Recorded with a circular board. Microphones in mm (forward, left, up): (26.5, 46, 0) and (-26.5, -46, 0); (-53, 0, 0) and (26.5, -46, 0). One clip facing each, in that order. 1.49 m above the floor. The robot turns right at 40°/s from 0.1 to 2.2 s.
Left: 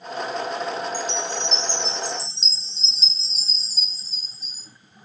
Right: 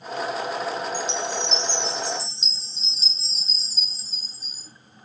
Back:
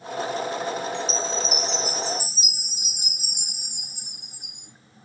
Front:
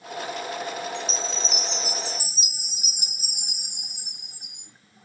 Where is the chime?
55° left, 1.1 m; by 4.7 s 105° left, 1.1 m.